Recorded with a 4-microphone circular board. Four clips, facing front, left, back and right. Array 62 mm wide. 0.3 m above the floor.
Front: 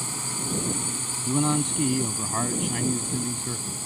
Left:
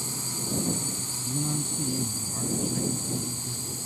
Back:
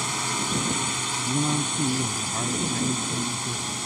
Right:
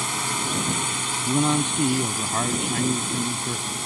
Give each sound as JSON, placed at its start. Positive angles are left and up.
{"t": 0.0, "sound": "a drone", "azimuth_deg": -125}
{"t": 1.2, "sound": "a man speaking", "azimuth_deg": -70}